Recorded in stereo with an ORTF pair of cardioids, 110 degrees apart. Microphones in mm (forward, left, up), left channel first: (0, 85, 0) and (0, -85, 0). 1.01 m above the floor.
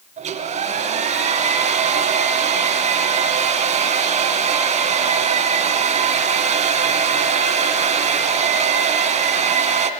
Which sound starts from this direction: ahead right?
A hair dryer, at 0.2 s.